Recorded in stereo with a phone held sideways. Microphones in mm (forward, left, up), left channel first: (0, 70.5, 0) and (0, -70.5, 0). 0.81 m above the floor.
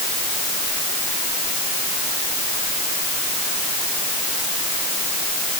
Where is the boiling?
No boiling in this recording.